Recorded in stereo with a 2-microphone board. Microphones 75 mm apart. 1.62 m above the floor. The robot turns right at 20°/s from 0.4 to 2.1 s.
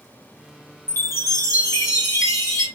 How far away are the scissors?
I don't hear scissors.